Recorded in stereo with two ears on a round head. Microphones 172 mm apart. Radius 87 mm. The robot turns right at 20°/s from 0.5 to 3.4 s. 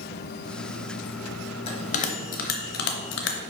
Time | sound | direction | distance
1.7 | a bell | 30° left (ahead or behind) | 0.9 m